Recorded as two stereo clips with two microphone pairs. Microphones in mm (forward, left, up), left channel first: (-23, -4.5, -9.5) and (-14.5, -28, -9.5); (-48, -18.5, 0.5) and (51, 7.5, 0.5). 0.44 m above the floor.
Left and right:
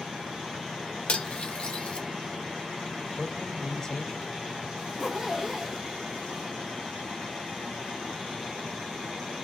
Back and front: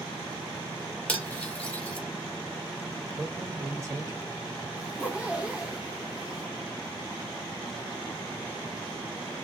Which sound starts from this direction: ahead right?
A zipper, at 4.8 s.